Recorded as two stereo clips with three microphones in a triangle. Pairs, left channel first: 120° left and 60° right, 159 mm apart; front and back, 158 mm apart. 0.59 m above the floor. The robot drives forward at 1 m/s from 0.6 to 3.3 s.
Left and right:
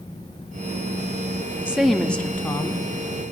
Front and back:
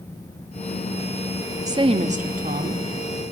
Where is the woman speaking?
130° right, 0.7 m; by 2.8 s 170° right, 1.6 m.